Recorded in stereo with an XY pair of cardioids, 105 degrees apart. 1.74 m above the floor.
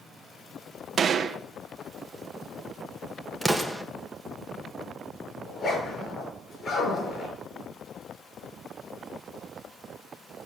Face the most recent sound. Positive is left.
turn(degrees=40)